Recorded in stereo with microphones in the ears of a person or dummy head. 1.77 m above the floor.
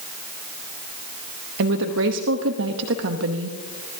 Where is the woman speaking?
65° right (ahead or behind), 0.9 m.